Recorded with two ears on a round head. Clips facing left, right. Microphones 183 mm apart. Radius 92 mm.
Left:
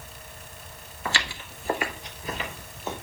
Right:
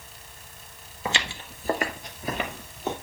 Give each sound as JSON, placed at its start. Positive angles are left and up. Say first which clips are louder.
{"t": 1.1, "sound": "footsteps", "louder": "right 1 dB", "side_deg": -15, "distance_m": 1.1}